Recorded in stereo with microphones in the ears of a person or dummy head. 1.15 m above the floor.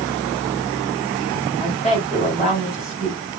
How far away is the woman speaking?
About 3 m.